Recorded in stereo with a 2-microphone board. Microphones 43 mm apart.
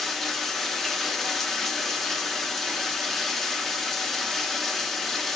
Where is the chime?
No chime in this recording.